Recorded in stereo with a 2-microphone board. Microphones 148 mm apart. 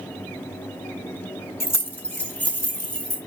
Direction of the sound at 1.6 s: 20° left (ahead or behind).